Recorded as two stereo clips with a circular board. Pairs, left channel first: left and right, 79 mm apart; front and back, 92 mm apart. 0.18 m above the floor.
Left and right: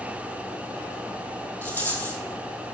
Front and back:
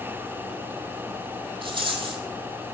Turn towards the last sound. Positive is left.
turn(degrees=150)